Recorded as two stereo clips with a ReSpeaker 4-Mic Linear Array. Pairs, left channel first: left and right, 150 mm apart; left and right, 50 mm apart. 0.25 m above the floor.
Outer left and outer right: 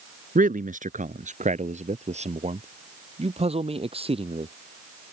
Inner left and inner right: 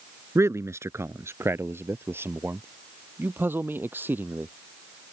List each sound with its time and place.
0.3 s a man speaking: 65° right (ahead or behind); by 4.5 s 40° right (ahead or behind)